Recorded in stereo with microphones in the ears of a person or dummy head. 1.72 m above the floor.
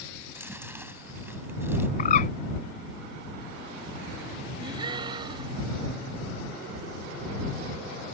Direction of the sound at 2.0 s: 45° left (ahead or behind).